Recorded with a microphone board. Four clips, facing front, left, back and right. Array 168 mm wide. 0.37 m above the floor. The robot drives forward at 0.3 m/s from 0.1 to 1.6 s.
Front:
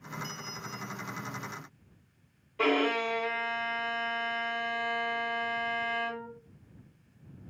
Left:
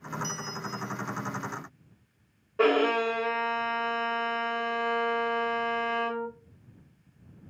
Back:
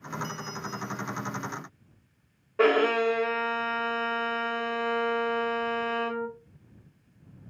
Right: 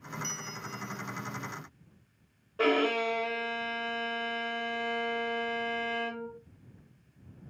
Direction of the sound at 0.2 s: 75° right.